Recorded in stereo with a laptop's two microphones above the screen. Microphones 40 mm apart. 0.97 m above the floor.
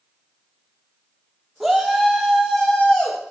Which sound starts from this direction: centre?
A shout, at 1.6 s.